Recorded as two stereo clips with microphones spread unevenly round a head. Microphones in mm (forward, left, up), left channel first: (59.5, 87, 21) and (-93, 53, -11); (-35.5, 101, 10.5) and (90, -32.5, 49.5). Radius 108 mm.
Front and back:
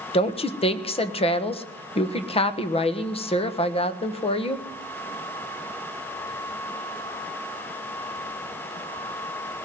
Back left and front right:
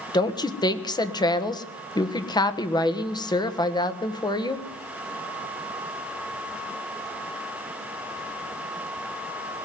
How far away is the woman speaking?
About 1.4 m.